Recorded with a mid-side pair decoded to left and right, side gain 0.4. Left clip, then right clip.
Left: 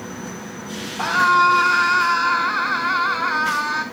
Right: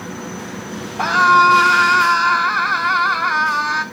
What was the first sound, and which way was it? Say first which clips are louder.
A scream: right 4 dB; 35° right.